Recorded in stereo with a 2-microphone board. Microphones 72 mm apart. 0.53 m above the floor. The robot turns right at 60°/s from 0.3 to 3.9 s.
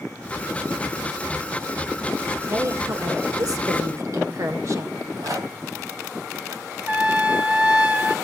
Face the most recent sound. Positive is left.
turn(degrees=-25)  # may be behind; listen again after turning